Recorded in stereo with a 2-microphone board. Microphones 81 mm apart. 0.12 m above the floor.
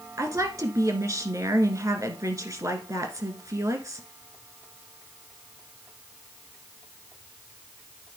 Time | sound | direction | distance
0.2 | a woman speaking | 40° right (ahead or behind) | 1.3 m